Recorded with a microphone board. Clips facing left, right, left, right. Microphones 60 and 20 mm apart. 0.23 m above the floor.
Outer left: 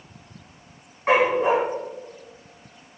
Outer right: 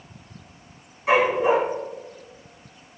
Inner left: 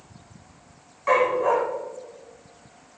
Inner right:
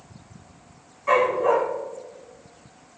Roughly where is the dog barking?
Left.